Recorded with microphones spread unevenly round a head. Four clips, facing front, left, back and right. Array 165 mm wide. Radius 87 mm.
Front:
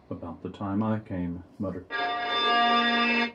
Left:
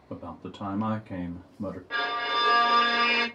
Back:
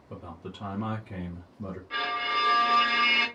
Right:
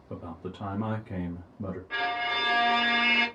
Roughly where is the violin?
Ahead.